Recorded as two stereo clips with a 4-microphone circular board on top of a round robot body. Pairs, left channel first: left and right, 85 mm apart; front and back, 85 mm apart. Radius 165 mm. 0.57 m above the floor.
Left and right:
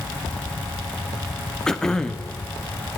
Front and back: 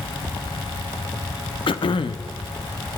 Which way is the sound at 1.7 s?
10° left.